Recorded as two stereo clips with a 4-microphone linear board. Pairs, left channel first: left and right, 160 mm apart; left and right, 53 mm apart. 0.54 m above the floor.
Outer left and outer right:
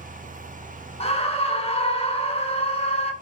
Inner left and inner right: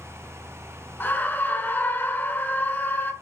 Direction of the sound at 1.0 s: 35° left (ahead or behind).